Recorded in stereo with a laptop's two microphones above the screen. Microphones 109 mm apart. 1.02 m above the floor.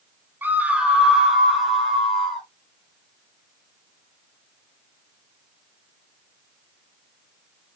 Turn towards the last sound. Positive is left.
turn(degrees=0)  # may be behind; listen again after turning